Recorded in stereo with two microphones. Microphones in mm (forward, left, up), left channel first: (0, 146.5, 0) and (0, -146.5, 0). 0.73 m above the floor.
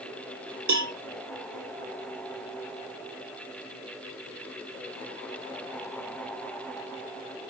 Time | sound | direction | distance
0.7 | a cowbell | 65° right (ahead or behind) | 1.1 m